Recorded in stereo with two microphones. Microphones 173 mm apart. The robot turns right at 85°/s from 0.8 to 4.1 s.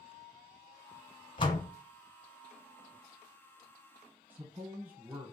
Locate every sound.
1.4 s a door slam: 35° left (ahead or behind), 1.2 m; by 1.7 s 25° left (ahead or behind), 1.2 m
4.3 s a man speaking: 10° right (ahead or behind), 1.4 m